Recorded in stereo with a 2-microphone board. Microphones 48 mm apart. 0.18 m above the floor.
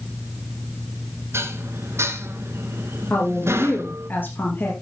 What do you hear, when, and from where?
1.3 s dishes clattering: 60° right (ahead or behind), 1.5 m
3.1 s a woman speaking: 45° left (ahead or behind), 4 m